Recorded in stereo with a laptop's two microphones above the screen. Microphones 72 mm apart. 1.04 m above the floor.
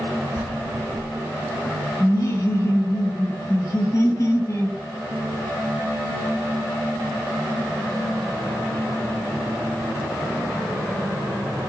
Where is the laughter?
40° left (ahead or behind), 0.8 m.